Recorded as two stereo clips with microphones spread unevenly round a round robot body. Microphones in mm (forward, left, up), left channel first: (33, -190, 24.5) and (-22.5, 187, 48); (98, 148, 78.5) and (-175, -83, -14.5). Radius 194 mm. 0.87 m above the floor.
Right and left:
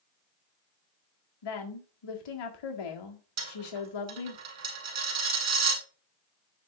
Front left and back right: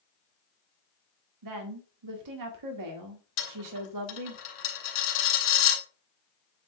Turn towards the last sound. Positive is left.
turn(degrees=50)